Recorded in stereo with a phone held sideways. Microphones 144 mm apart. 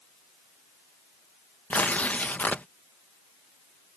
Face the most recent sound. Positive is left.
turn(degrees=10)  # may be behind; listen again after turning